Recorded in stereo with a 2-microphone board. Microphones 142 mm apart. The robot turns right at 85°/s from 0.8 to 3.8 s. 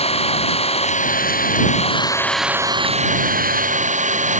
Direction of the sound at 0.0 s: 45° left.